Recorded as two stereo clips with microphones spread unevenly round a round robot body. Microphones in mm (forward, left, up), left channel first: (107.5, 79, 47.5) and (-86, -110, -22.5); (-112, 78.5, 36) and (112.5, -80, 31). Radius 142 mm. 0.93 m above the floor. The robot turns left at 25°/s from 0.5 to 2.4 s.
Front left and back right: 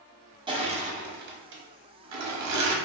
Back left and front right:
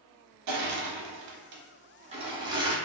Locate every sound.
0.5 s crushing: 65° right, 0.7 m; by 2.7 s 110° right, 0.7 m